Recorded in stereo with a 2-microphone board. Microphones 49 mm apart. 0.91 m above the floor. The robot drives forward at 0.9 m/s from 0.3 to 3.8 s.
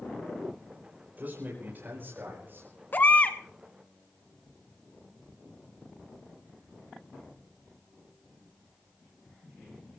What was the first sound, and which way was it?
A man speaking, 40° right (ahead or behind).